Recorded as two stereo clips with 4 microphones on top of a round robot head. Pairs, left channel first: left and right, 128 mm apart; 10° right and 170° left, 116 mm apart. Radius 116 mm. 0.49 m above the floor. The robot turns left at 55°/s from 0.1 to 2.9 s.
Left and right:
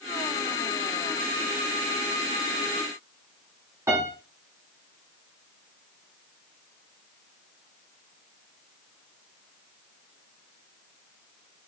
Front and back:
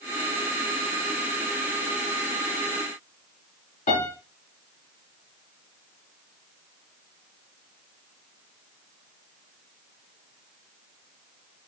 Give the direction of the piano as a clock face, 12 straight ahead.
1 o'clock.